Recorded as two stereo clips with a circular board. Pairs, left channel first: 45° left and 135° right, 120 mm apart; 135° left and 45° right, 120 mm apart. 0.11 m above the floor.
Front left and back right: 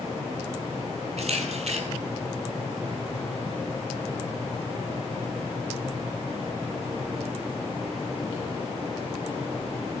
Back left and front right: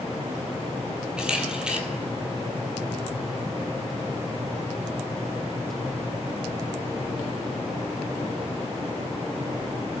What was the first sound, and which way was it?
A camera shutter, 130° right.